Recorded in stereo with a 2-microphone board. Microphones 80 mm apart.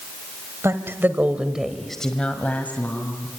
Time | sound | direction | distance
0.6 | a woman speaking | 35° right (ahead or behind) | 1.6 m